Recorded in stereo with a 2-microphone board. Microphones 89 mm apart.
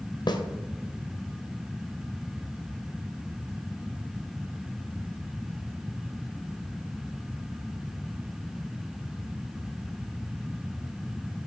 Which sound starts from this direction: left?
A snare drum, at 0.3 s.